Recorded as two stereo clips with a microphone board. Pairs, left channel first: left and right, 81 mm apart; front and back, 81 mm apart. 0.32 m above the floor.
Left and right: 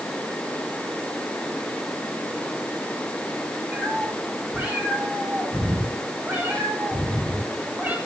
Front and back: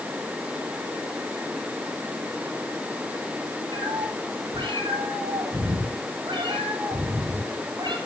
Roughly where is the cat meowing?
Behind.